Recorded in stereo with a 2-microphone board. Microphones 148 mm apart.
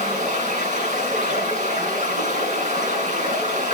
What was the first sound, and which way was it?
Running water, 50° right (ahead or behind).